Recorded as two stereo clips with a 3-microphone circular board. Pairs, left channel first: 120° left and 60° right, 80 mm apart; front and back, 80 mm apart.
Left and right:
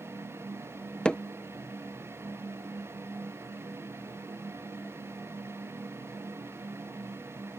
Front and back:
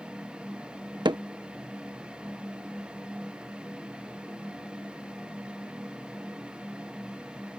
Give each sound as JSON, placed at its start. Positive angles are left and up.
{"t": 1.1, "sound": "hammering", "azimuth_deg": -165}